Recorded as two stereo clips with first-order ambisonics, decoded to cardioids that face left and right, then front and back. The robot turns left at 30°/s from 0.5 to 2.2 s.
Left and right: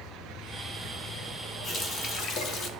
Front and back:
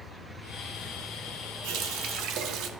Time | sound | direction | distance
1.6 | a running tap | 160° left | 1.0 m